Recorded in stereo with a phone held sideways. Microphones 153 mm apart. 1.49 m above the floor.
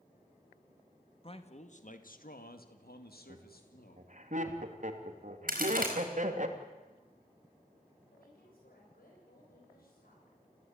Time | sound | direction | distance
1.2 | a man speaking | 35° left (ahead or behind) | 2 m
3.3 | laughter | 55° right (ahead or behind) | 3 m
5.5 | a crack | 65° right (ahead or behind) | 5.5 m
8.1 | a woman speaking | 75° left (ahead or behind) | 7.5 m